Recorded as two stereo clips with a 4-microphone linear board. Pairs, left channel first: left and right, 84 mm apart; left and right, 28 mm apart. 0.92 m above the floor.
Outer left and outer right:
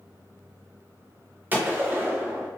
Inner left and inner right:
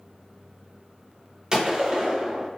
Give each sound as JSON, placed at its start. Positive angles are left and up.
{"t": 1.5, "sound": "a gunshot", "side_deg": -25, "distance_m": 0.8}